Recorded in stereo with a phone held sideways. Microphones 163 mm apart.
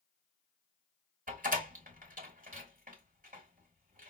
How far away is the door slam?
About 1.4 m.